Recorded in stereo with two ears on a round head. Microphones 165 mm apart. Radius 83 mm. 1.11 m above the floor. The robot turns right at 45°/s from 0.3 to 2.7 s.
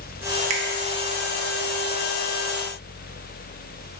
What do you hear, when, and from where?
0.5 s a finger snap: 35° right (ahead or behind), 0.9 m; by 0.6 s 30° right (ahead or behind), 0.9 m